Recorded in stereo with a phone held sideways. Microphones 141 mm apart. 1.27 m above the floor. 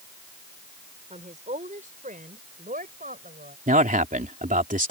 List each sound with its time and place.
1.1 s a woman speaking: 55° right (ahead or behind); by 3.6 s 85° right
3.7 s a man speaking: 65° right (ahead or behind)